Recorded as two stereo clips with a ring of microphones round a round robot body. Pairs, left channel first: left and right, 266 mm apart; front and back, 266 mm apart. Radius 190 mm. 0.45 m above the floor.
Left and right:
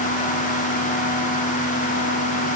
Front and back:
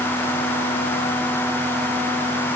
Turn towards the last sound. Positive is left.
No sound to turn to.